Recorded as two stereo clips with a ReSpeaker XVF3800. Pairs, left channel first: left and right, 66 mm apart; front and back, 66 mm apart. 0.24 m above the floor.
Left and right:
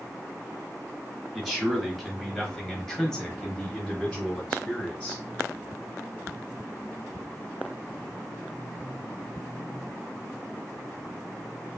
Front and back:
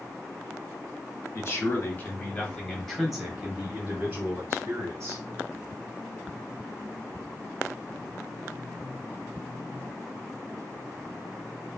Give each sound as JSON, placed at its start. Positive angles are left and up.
{"t": 1.4, "sound": "a man speaking", "azimuth_deg": 0, "distance_m": 1.4}